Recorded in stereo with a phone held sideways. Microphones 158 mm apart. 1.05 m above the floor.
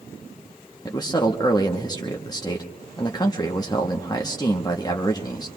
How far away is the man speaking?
About 0.8 m.